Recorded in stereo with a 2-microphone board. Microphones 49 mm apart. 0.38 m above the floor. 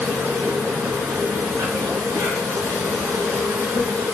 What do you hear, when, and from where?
0.0 s an insect: 70° right (ahead or behind), 1.6 m